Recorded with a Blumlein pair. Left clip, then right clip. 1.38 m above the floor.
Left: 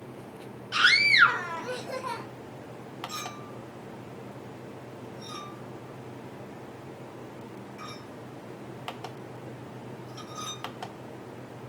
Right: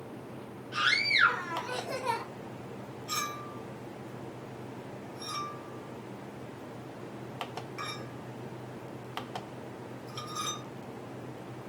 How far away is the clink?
About 0.9 m.